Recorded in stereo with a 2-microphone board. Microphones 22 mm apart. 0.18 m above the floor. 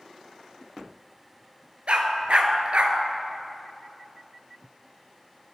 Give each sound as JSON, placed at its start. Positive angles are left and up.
{"t": 1.9, "sound": "a dog barking", "side_deg": -65, "distance_m": 0.7}